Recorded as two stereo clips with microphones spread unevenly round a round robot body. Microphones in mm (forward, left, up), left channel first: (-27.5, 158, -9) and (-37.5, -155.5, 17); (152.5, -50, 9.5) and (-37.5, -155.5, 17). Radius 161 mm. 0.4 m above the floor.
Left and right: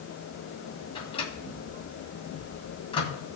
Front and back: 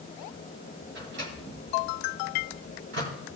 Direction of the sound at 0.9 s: 160° left.